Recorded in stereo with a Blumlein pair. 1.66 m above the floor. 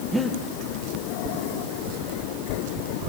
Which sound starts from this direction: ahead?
Breathing, at 0.1 s.